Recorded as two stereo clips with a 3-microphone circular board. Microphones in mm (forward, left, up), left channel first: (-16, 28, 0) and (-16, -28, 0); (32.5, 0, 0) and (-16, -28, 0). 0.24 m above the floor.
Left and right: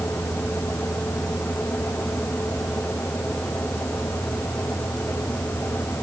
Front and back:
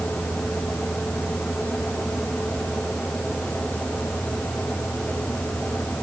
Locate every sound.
Only background noise.